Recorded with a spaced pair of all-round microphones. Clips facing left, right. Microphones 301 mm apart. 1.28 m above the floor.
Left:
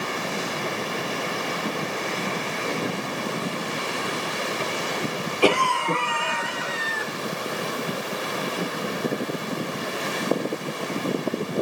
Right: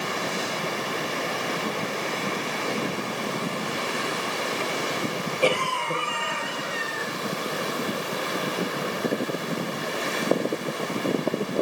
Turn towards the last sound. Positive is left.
turn(degrees=90)